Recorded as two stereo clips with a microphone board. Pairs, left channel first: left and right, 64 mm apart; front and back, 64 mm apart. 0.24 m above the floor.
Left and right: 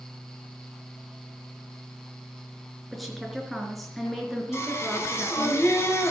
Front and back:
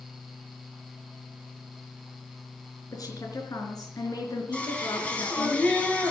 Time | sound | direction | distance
2.9 | a woman speaking | straight ahead | 3.5 m
4.5 | singing | 65° left | 2.5 m